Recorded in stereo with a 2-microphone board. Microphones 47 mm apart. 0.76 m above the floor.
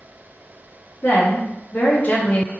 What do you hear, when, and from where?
1.0 s a woman speaking: 65° left (ahead or behind), 0.8 m; by 2.5 s 25° left (ahead or behind), 0.8 m